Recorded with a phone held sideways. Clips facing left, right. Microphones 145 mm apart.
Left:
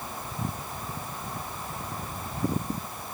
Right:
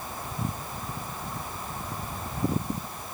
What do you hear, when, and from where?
Only background noise.